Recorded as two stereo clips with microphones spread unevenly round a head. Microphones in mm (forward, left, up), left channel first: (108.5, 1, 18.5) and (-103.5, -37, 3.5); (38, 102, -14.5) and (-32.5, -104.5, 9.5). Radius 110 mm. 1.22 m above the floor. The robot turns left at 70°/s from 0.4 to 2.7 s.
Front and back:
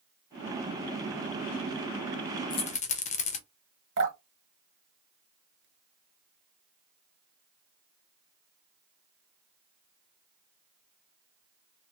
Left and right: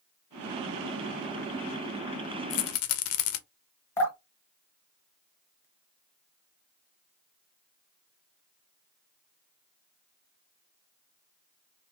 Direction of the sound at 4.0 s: 145° left.